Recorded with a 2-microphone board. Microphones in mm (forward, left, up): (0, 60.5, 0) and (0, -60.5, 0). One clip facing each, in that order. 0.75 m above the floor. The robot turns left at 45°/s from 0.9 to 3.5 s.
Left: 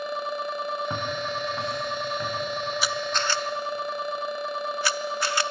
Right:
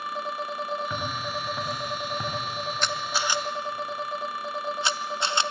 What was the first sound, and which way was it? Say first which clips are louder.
Footsteps: left 2 dB; 30° left (ahead or behind).